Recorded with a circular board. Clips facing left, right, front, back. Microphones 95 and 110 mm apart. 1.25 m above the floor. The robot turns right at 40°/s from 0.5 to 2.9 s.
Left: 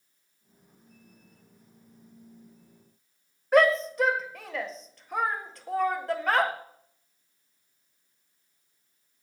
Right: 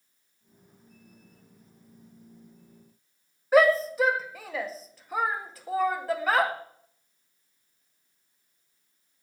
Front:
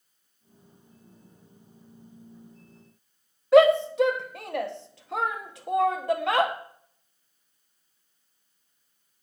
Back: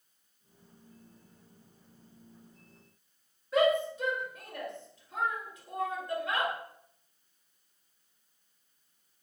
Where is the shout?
5° right, 1.9 m.